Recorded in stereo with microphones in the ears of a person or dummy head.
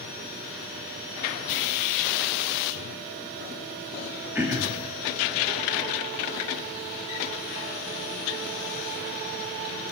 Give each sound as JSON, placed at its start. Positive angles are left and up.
{"t": 4.3, "sound": "throat clearing", "side_deg": -10, "distance_m": 0.7}